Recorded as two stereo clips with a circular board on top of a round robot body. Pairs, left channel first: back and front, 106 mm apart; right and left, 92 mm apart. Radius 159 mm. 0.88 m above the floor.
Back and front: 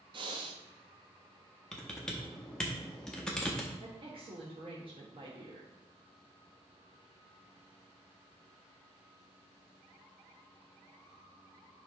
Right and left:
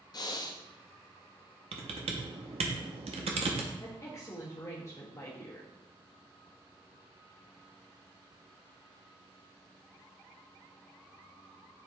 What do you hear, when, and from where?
0.1 s breathing: 45° right, 0.5 m
1.7 s typing on a keyboard: 95° left, 0.6 m
3.8 s a woman speaking: 35° right, 1.5 m